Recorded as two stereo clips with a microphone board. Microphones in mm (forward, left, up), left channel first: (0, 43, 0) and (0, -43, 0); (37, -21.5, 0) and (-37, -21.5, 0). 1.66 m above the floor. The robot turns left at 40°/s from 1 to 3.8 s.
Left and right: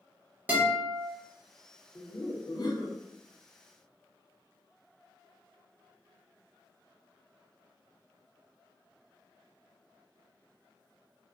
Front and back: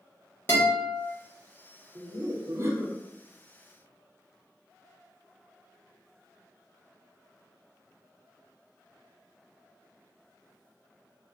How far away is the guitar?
About 1.0 m.